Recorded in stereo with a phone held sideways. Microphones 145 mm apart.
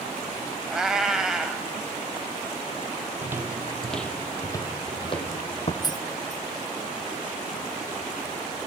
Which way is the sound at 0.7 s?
5° right (ahead or behind).